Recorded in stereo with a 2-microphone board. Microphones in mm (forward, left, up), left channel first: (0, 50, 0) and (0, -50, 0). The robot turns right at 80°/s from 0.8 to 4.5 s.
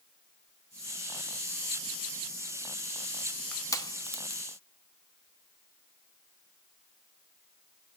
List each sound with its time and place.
3.5 s crushing: 15° left (ahead or behind), 0.7 m; by 4.4 s 80° left, 0.7 m